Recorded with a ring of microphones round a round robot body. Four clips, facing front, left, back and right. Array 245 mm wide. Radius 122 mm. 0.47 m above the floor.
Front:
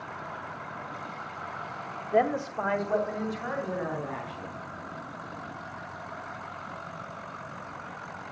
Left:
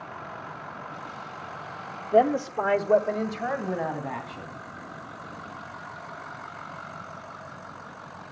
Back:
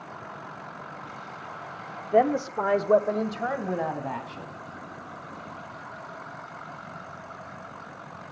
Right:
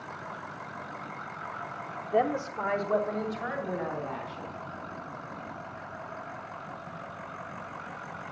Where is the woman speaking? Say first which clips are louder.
Left 6 dB, back 4 dB; 145° left, 0.8 m; by 4.5 s 155° left, 4 m.